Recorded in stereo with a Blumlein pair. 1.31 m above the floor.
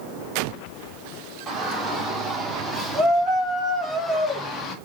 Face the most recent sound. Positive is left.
turn(degrees=25)